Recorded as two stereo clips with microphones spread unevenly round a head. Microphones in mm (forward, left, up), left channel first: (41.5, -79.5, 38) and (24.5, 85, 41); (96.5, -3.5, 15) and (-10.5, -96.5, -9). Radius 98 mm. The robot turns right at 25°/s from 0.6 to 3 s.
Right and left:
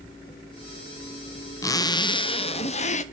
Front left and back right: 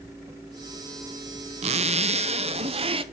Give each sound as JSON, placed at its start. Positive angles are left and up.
{"t": 1.6, "sound": "a zipper", "azimuth_deg": -150, "distance_m": 0.6}